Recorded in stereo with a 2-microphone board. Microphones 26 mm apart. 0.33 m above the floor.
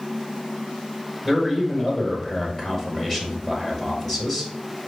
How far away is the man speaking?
About 1.4 m.